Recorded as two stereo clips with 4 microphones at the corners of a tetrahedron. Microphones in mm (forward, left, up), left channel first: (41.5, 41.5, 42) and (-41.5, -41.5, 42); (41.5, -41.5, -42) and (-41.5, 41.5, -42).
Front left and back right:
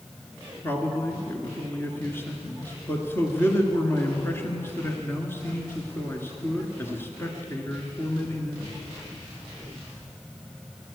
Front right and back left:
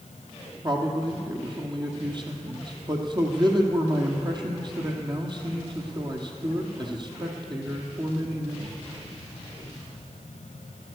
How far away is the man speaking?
About 1.8 m.